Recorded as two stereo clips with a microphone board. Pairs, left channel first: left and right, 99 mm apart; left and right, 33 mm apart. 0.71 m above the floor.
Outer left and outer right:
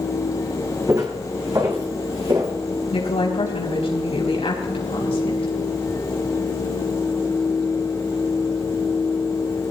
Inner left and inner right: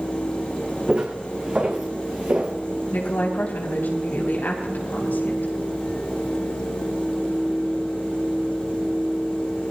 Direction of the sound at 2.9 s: 75° left (ahead or behind).